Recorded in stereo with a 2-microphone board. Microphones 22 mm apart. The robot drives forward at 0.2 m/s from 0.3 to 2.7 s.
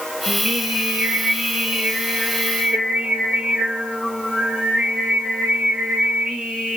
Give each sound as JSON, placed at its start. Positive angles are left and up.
{"t": 0.3, "sound": "singing", "side_deg": -75, "distance_m": 6.5}